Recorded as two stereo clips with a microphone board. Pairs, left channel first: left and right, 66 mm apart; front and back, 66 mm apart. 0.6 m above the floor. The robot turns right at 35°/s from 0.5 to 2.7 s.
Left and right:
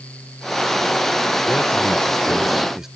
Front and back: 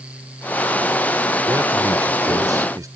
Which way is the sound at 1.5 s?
145° left.